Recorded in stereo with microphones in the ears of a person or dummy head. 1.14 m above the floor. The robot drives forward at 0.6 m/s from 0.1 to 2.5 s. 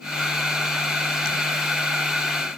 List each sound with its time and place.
Only background noise.